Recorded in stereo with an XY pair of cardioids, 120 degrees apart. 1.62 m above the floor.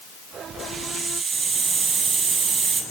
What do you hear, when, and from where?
0.6 s a hiss: 35° right, 7.5 m